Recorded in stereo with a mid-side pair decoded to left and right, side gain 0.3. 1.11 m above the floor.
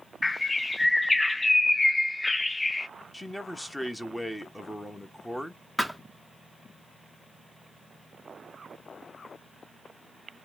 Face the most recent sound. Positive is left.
turn(degrees=15)